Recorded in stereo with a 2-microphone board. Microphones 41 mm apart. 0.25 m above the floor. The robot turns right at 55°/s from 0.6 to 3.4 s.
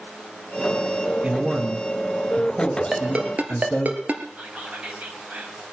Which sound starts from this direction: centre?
A ringtone, at 2.9 s.